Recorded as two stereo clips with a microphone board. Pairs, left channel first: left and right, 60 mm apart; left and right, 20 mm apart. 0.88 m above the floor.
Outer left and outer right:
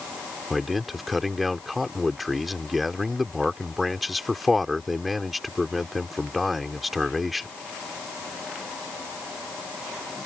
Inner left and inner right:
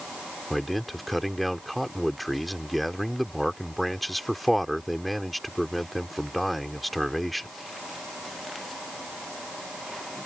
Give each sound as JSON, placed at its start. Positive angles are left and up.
{"t": 0.5, "sound": "a man speaking", "side_deg": 0}